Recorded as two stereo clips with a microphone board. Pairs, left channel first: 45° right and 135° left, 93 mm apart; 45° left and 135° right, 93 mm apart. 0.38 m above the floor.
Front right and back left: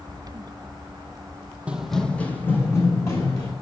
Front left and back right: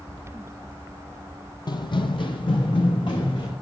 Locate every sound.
1.7 s running footsteps: 60° left, 0.5 m; by 3.5 s 10° left, 1.5 m